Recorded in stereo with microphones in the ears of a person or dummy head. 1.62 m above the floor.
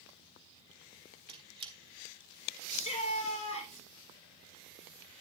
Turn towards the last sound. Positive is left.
turn(degrees=30)  # may be behind; listen again after turning